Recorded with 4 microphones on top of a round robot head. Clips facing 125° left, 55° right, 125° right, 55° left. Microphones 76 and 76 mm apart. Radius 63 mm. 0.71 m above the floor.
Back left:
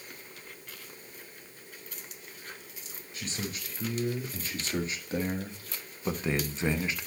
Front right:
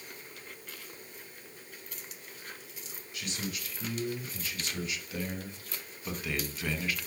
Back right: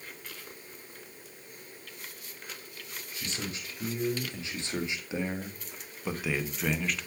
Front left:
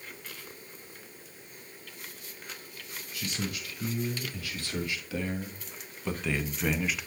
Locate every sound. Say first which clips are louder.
3.1 s a man speaking: back left 1 dB, front left 3 dB; straight behind, 2.5 m; by 7.1 s 120° left, 1.1 m